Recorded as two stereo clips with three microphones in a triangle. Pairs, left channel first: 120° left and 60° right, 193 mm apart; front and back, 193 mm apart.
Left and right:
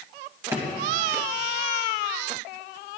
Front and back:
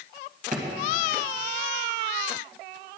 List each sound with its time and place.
0.5 s a drawer: 135° right, 2.5 m